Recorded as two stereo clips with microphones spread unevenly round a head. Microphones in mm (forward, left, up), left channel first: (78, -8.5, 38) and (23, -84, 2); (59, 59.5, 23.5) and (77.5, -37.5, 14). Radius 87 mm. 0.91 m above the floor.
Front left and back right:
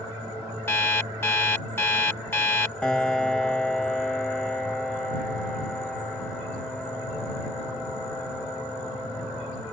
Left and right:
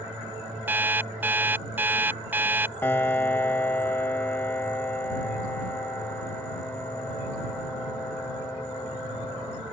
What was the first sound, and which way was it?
An alarm clock, 10° right.